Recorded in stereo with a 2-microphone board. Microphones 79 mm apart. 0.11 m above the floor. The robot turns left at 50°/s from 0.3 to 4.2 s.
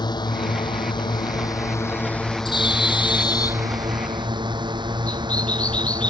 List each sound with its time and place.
0.0 s a drone: 65° left (ahead or behind); by 6.1 s 70° right (ahead or behind)
2.5 s a bird: 80° left; by 6.1 s 15° left (ahead or behind)